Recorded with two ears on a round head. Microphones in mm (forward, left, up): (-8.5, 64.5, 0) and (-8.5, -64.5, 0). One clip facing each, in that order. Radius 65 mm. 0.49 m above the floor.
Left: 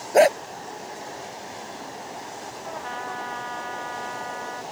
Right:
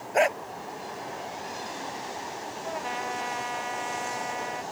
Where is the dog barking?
45° left (ahead or behind).